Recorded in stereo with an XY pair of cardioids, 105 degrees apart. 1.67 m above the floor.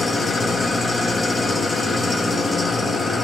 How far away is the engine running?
About 0.7 m.